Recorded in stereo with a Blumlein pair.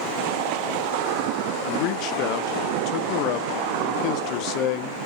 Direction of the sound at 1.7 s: 40° left.